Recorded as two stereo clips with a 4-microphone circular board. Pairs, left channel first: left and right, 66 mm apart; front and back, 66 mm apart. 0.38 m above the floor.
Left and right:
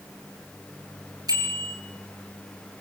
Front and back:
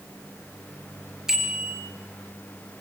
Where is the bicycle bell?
100° right, 5.5 m.